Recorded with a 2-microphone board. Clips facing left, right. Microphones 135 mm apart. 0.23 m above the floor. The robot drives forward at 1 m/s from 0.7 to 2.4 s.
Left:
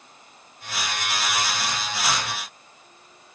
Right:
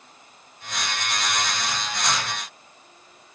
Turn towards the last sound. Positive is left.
No sound to turn to.